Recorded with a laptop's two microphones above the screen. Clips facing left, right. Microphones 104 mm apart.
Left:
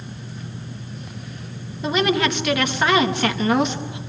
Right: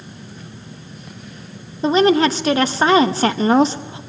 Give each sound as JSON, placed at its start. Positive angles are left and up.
{"t": 1.8, "sound": "a woman speaking", "side_deg": -35, "distance_m": 1.0}